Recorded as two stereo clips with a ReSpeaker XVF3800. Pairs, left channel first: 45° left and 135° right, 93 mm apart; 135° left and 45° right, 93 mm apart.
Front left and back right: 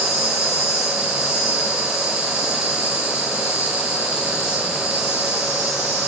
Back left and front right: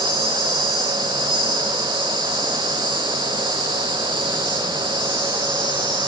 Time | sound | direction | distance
0.0 | an insect | 105° left | 1.0 m